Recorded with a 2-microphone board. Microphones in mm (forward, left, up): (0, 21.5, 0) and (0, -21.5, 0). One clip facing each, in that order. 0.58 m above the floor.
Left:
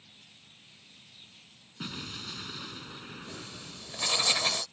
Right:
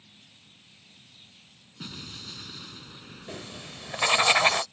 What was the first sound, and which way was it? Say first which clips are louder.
An explosion: left 2 dB; 15° left (ahead or behind).